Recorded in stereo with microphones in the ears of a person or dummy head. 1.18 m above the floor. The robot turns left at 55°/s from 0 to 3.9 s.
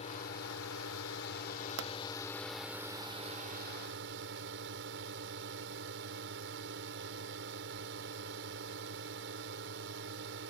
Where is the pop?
65° right (ahead or behind).